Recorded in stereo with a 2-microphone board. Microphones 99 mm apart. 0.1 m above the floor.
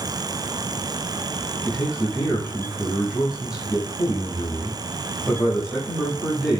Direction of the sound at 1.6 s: 5° right (ahead or behind).